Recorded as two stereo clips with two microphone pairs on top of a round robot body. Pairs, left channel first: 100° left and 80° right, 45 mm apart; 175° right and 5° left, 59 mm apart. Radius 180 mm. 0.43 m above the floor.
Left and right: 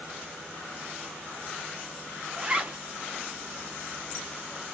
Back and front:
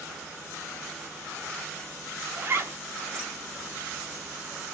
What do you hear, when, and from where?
2.4 s a zipper: 30° right, 1.3 m